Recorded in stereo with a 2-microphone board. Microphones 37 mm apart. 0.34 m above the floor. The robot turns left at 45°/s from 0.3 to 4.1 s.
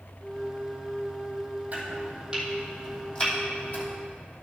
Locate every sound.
1.7 s chopping: 45° right (ahead or behind), 3 m; by 3.8 s 50° left (ahead or behind), 3 m